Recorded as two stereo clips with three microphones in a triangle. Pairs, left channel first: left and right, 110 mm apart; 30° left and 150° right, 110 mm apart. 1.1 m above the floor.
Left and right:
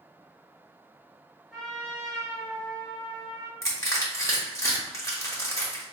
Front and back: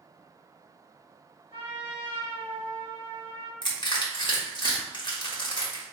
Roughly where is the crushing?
Ahead left.